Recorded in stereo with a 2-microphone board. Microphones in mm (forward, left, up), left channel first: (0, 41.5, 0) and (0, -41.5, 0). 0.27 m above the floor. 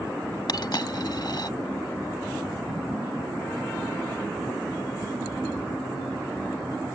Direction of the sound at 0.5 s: 60° left (ahead or behind).